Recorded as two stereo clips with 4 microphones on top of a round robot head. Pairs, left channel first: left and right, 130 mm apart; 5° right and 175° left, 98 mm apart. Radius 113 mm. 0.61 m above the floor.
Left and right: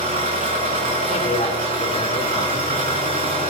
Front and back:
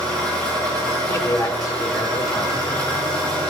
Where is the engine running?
80° right, 6 m.